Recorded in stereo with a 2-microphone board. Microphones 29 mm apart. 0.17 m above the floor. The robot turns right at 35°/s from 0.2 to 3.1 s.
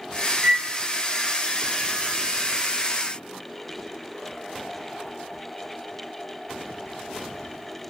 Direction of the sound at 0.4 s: Centre (ahead or behind).